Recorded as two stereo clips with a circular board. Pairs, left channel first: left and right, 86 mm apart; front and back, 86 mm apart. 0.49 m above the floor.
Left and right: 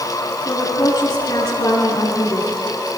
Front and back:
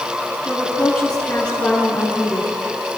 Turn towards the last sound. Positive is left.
turn(degrees=75)